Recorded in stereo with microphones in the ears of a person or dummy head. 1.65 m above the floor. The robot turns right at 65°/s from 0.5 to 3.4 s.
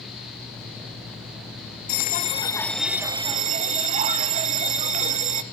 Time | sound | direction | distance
1.9 | a bell | 120° left | 0.7 m